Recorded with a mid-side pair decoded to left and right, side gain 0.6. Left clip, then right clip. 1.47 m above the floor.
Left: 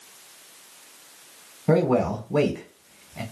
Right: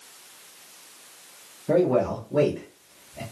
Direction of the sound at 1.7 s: 70° left.